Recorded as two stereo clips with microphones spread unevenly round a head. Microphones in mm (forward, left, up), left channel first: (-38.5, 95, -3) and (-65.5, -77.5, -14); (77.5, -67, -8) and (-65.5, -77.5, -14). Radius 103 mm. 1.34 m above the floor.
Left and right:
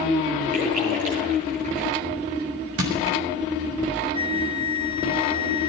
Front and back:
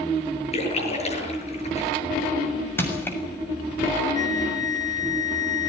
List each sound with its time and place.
0.5 s a splash: 40° right, 8 m
2.8 s crushing: 70° right, 7 m
4.2 s a flute: 45° left, 1.2 m